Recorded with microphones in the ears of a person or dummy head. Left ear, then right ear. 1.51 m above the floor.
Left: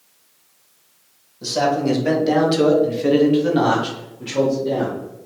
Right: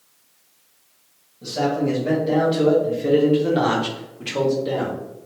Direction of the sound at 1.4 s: 70° left (ahead or behind).